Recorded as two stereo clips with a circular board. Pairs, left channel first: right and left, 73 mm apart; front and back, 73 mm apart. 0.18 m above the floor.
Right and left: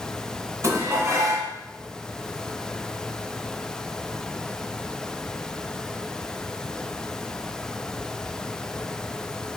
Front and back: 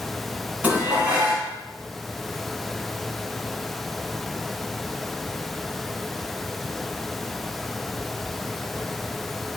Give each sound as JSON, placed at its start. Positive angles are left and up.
{"t": 0.6, "sound": "dishes clattering", "azimuth_deg": 115, "distance_m": 1.1}